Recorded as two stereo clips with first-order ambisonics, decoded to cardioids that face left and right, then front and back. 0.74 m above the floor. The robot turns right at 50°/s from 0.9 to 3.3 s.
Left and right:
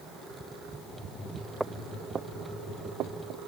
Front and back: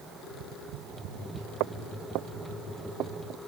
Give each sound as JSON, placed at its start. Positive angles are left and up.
{"t": 0.2, "sound": "tapping", "azimuth_deg": -170}
{"t": 1.6, "sound": "footsteps", "azimuth_deg": -175}